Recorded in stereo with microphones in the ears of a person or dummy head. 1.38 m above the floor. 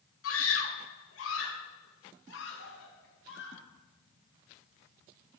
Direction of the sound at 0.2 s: 80° left.